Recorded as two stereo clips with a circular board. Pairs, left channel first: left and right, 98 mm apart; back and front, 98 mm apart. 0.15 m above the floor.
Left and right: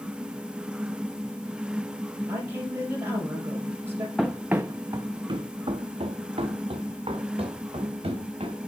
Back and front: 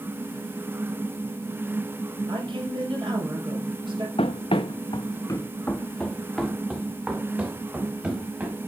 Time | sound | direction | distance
2.3 | a woman speaking | 25° right | 3 m
4.2 | running footsteps | straight behind | 0.8 m